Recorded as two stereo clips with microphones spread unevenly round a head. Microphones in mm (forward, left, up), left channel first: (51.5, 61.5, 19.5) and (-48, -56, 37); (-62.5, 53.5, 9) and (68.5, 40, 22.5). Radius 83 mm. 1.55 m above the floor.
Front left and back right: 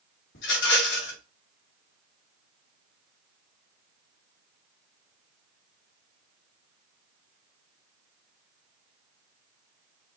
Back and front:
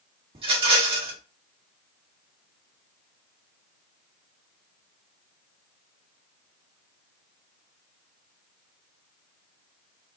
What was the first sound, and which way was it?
A rattle, 40° left.